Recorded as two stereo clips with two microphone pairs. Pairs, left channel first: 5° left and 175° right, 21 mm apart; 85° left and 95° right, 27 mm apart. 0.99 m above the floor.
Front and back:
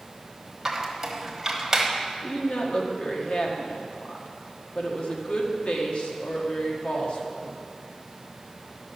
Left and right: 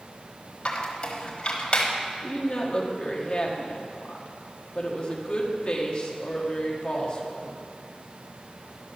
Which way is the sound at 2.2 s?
35° left.